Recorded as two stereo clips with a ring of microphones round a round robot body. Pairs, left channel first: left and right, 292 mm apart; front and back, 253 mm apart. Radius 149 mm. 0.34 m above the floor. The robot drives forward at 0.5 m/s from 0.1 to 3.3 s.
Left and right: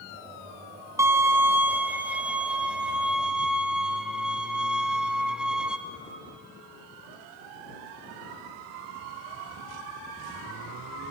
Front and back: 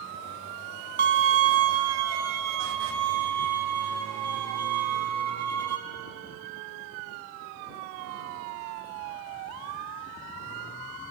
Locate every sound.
1.0 s a violin: 165° right, 0.5 m; by 5.8 s 175° right, 1.5 m